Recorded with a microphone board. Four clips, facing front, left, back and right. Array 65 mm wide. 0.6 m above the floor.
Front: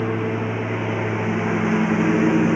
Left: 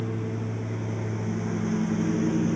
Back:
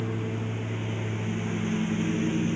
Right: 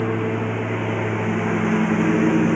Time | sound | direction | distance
0.0 | a lawn mower | 55° right | ?